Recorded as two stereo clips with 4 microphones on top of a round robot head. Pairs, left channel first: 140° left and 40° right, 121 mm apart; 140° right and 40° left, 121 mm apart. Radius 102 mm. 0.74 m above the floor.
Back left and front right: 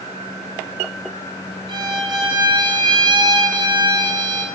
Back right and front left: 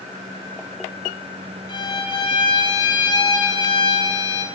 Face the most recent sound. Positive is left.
turn(degrees=-90)